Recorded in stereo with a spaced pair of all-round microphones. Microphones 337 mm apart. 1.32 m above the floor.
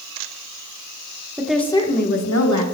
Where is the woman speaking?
10° right (ahead or behind), 1.2 m; by 2.6 s 60° left (ahead or behind), 1.3 m.